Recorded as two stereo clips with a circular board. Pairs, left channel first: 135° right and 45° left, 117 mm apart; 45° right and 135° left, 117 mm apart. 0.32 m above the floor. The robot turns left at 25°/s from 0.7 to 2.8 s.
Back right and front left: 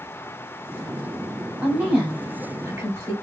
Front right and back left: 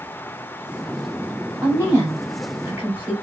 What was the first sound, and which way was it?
A woman speaking, 110° left.